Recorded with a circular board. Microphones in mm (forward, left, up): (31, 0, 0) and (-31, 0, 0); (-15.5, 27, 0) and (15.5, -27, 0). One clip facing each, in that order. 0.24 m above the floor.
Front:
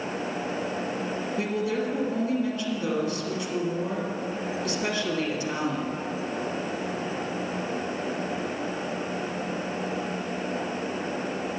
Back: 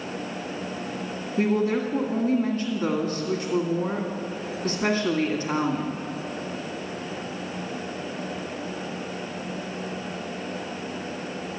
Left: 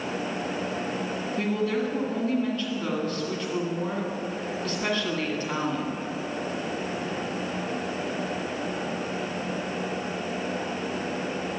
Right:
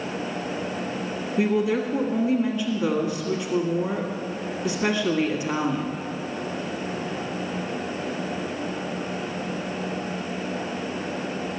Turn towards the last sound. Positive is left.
turn(degrees=-135)